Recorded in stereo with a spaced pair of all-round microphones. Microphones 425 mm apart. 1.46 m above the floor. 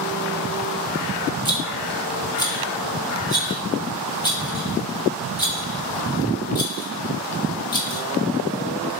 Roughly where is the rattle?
Centre.